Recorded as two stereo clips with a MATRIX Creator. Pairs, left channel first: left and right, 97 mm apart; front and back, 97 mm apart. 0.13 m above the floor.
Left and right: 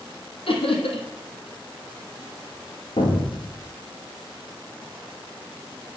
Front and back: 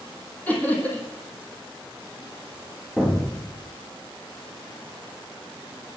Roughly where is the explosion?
Left.